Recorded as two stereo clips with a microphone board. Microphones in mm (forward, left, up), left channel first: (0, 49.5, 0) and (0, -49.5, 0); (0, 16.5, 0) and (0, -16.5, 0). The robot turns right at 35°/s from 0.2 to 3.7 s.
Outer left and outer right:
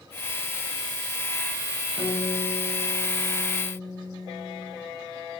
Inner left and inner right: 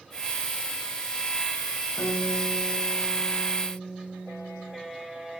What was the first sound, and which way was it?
A guitar, 100° left.